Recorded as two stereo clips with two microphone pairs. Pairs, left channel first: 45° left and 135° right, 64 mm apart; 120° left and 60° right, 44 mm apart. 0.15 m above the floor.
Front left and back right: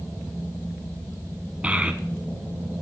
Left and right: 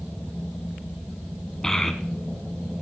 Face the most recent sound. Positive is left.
turn(degrees=-170)